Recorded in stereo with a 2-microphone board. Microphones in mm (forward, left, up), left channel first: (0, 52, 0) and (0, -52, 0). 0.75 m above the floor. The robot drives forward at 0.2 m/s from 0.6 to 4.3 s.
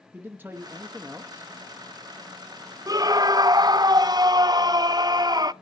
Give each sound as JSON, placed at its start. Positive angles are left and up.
{"t": 0.1, "sound": "a man speaking", "side_deg": -20, "distance_m": 0.9}
{"t": 2.9, "sound": "a scream", "side_deg": -35, "distance_m": 0.6}